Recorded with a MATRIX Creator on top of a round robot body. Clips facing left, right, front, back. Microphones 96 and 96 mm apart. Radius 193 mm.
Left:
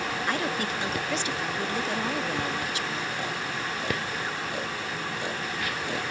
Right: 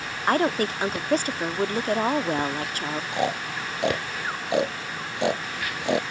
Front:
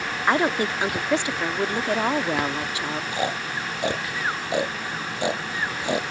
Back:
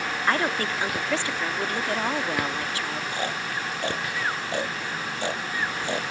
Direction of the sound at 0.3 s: 65° right.